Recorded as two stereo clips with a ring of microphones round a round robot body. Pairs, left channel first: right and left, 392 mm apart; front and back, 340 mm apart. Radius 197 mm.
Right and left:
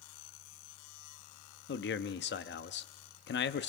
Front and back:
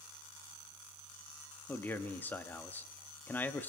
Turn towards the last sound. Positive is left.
turn(degrees=-75)